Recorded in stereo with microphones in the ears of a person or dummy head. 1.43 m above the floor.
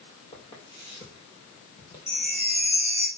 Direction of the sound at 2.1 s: 15° left (ahead or behind).